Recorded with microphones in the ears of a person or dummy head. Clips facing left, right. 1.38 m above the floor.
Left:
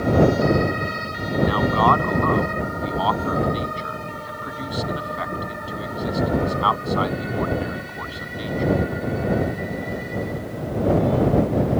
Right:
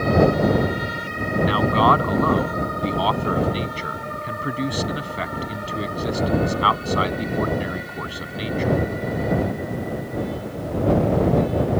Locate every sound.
1.4 s a man speaking: 35° right (ahead or behind)